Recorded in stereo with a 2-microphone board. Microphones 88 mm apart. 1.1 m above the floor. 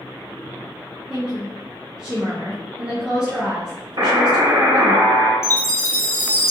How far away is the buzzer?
About 1.0 m.